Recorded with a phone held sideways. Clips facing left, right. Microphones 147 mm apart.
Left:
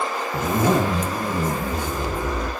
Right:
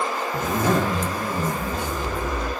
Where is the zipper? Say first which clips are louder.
Left 3 dB; 15° left (ahead or behind), 1.8 m.